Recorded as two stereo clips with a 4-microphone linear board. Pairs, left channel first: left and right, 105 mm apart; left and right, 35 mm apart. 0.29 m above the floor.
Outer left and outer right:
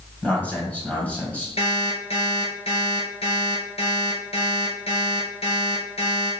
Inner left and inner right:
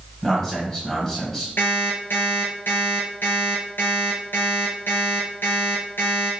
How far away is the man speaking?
About 2 m.